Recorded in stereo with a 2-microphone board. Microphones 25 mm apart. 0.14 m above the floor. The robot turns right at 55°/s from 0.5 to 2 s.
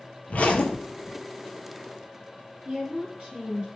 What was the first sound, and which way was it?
A zipper, 85° left.